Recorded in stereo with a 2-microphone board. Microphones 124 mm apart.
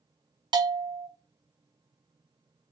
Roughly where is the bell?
Right.